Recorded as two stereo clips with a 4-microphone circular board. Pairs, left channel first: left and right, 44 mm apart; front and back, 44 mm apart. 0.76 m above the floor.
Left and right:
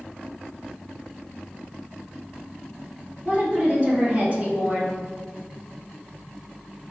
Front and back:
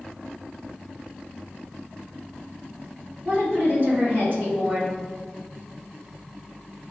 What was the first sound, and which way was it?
A woman speaking, 145° right.